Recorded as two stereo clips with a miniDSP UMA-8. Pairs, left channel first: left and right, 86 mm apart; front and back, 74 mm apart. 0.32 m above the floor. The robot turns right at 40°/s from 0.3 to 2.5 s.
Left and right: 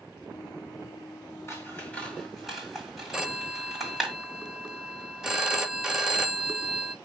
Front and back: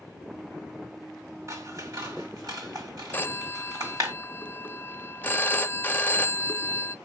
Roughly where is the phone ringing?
Ahead.